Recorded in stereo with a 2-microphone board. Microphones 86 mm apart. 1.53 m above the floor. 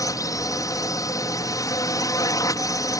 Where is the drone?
40° left (ahead or behind).